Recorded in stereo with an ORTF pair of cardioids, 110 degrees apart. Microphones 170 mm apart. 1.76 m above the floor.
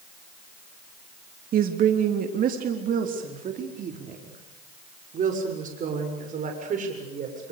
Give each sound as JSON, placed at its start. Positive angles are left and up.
{"t": 1.5, "sound": "a woman speaking", "azimuth_deg": -60, "distance_m": 3.0}